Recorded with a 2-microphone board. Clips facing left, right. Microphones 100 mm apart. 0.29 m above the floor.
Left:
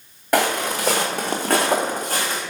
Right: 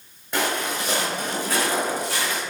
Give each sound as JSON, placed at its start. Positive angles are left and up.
{"t": 0.3, "sound": "footsteps", "side_deg": 75, "distance_m": 1.1}